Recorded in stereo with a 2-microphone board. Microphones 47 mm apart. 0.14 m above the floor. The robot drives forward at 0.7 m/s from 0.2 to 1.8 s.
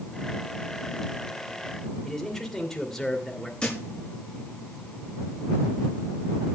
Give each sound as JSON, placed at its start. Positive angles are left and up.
{"t": 2.0, "sound": "a man speaking", "side_deg": 10, "distance_m": 2.5}
{"t": 3.6, "sound": "a thud", "side_deg": 20, "distance_m": 6.5}